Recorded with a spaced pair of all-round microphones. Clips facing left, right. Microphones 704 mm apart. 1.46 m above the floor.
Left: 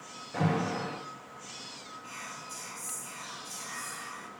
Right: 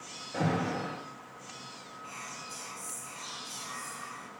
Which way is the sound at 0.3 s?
35° left (ahead or behind).